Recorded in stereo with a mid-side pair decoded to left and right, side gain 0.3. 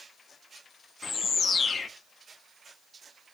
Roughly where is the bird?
Ahead left.